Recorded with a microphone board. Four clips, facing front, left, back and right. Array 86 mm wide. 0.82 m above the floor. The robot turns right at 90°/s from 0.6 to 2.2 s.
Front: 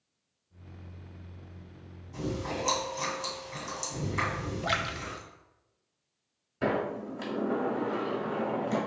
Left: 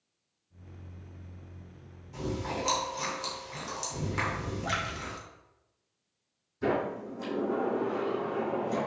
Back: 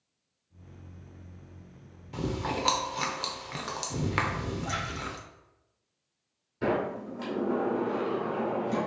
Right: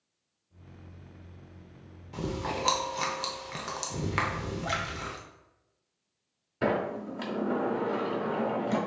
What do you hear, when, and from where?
2.1 s chewing: 155° right, 0.8 m; by 5.2 s 145° right, 0.8 m
4.6 s a splash: straight ahead, 0.6 m
6.6 s a sliding door: 80° right, 1.3 m